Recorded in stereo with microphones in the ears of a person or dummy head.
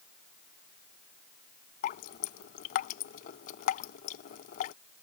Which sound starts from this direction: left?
Dripping, at 1.8 s.